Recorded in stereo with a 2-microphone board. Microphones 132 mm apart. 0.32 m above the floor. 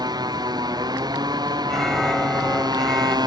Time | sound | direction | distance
0.0 | a motorcycle | 30° right (ahead or behind) | ?
1.7 | an alarm | centre (ahead or behind) | ?